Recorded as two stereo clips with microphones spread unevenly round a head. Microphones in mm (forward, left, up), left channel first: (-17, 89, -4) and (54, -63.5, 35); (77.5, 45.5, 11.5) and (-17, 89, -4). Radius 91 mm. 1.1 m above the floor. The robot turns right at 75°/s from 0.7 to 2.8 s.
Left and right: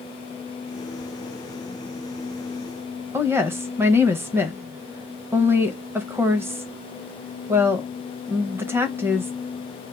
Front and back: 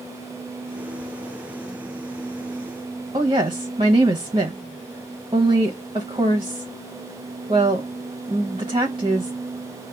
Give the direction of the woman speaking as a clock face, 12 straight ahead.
5 o'clock.